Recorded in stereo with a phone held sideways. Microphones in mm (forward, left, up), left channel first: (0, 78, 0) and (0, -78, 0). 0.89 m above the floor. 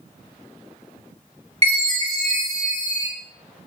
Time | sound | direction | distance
1.6 | a chime | 45° right (ahead or behind) | 1.5 m